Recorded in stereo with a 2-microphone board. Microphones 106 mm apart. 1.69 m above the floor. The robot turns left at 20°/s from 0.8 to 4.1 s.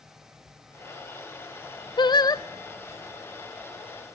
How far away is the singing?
About 0.6 m.